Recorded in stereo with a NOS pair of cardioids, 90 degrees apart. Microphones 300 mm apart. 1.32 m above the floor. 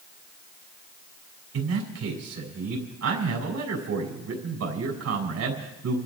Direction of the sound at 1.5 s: 60° right.